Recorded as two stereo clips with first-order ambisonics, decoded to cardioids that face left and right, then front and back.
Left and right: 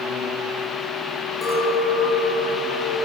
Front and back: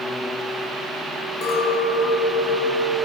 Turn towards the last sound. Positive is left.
turn(degrees=15)